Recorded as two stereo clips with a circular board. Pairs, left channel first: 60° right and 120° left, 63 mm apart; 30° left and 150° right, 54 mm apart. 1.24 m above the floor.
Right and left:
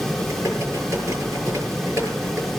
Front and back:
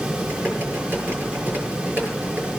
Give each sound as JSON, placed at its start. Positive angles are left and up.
{"t": 0.1, "sound": "typing on a keyboard", "azimuth_deg": 155, "distance_m": 7.0}